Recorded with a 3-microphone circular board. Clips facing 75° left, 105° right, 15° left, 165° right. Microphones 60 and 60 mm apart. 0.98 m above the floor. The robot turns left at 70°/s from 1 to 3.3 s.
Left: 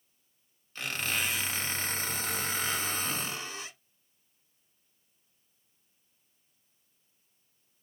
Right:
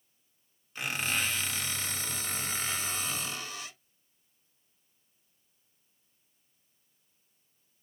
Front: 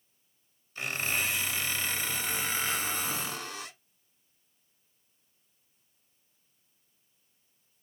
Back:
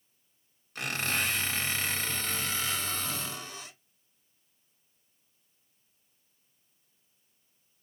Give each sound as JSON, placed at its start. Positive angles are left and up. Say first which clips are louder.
{"t": 0.8, "sound": "a squeak", "louder": "right 1 dB, back 1 dB", "azimuth_deg": 180, "distance_m": 1.7}